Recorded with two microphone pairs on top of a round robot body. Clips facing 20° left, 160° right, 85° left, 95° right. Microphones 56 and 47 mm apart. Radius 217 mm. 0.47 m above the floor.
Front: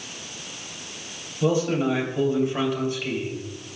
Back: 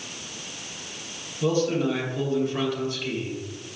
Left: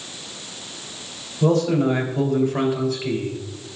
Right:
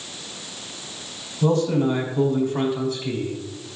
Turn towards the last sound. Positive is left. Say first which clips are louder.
# front 1 dB, left 2 dB
turn(degrees=100)